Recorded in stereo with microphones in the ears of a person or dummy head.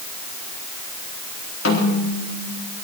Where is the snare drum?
85° left, 4 m.